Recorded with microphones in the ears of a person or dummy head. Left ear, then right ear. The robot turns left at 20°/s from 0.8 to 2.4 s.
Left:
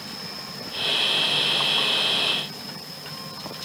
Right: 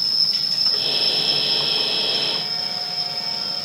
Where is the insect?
90° right, 1.0 m; by 3.7 s 120° right, 1.0 m.